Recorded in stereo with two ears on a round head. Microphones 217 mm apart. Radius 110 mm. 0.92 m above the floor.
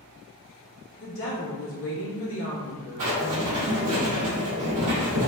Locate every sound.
1.0 s a woman speaking: 60° left (ahead or behind), 1.7 m
3.0 s writing: 65° right (ahead or behind), 1.5 m